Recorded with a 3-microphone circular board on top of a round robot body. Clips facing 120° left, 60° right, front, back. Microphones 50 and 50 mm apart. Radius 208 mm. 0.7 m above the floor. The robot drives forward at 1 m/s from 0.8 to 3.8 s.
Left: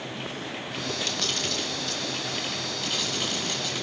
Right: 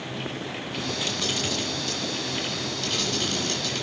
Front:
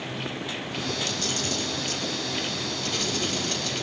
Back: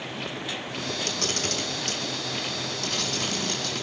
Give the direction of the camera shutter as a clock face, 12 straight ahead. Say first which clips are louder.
Right 2 dB, even; 5 o'clock.